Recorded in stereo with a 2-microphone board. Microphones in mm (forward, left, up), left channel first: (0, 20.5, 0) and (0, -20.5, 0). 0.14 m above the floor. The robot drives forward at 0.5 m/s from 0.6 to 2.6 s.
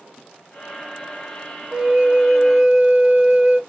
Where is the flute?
15° right (ahead or behind), 0.6 m.